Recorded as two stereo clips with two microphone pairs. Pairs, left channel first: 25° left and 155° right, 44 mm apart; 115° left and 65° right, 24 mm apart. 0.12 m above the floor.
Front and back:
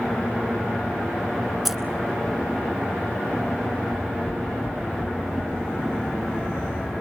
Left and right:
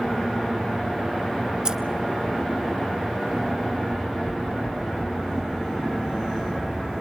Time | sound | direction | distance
1.6 | keys jangling | 70° right | 0.9 m
3.9 | knocking | 145° left | 5 m